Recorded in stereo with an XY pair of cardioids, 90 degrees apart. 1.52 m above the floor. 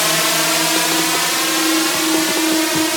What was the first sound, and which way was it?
A drone, 5° left.